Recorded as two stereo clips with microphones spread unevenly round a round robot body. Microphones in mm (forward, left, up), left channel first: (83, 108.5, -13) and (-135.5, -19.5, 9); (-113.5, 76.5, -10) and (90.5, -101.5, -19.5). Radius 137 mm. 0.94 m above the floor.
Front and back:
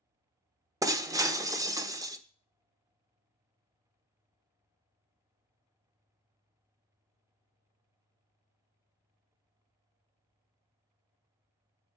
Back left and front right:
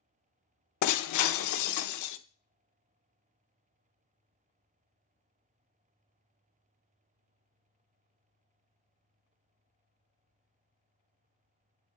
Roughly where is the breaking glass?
Behind left.